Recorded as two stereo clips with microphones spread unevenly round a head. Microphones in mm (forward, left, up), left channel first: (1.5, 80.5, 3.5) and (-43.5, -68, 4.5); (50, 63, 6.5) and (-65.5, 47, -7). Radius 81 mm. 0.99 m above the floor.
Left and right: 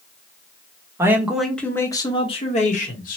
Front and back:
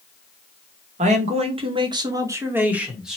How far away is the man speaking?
About 0.9 m.